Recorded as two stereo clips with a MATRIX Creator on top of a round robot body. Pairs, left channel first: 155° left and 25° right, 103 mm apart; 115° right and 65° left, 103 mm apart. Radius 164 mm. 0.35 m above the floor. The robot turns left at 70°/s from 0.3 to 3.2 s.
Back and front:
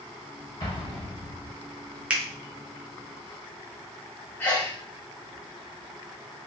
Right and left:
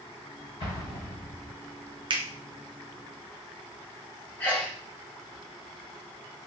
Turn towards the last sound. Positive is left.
turn(degrees=-160)